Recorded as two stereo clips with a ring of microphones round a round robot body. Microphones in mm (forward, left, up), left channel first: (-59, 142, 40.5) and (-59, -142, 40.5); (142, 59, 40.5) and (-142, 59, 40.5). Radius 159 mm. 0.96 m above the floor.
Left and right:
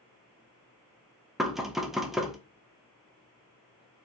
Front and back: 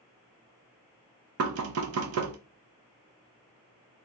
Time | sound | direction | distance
1.4 | knocking | straight behind | 0.5 m